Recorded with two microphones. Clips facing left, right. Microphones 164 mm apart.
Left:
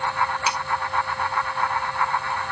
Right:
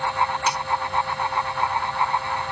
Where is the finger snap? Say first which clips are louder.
Right 1 dB; 5° left (ahead or behind), 1.7 m.